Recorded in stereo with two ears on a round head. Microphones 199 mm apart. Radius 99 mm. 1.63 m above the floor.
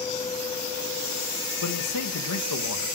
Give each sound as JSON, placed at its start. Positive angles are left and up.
{"t": 1.6, "sound": "a man speaking", "side_deg": 85, "distance_m": 2.5}